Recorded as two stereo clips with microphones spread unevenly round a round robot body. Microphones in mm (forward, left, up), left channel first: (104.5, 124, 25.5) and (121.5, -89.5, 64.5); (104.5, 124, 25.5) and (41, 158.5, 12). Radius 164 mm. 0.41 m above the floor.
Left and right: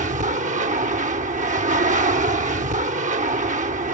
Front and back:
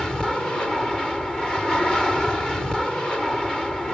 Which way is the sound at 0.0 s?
120° right.